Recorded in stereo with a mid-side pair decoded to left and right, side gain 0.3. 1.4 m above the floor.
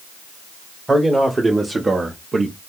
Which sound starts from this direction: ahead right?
A man speaking, at 0.9 s.